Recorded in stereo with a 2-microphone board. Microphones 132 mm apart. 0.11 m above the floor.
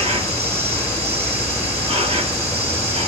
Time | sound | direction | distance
0.0 | an insect | 45° right (ahead or behind) | 0.8 m